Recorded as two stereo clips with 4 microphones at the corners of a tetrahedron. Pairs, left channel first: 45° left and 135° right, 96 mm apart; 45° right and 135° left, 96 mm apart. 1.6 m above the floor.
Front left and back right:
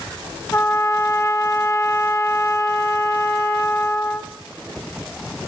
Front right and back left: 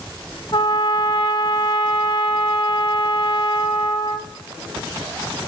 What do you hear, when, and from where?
0.5 s a trumpet: 5° right, 2 m